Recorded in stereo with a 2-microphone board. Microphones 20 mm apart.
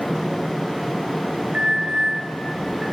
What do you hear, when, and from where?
1.5 s an alarm: 65° right (ahead or behind), 6.5 m